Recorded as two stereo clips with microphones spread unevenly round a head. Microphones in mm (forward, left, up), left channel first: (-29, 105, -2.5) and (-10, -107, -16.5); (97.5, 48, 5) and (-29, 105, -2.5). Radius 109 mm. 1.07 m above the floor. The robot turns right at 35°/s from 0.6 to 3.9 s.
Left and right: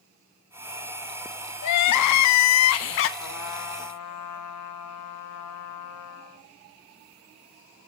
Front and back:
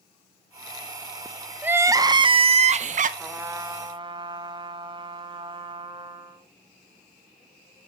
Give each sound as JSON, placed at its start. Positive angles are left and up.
{"t": 1.6, "sound": "crying", "azimuth_deg": 80, "distance_m": 0.5}
{"t": 3.2, "sound": "a trumpet", "azimuth_deg": 75, "distance_m": 0.8}